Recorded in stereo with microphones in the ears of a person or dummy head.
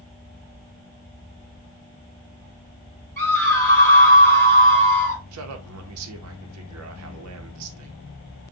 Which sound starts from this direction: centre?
A scream, at 3.2 s.